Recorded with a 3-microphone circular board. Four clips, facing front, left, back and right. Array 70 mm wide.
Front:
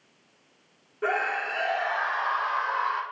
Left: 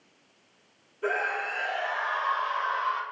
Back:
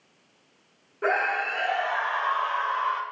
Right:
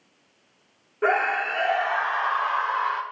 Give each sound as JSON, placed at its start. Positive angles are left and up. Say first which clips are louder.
{"t": 1.0, "sound": "a scream", "louder": "right 6 dB, back 2 dB", "azimuth_deg": -100, "distance_m": 4.0}